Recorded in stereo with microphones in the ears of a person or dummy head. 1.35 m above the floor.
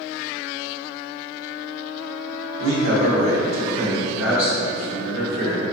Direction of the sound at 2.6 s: 80° right.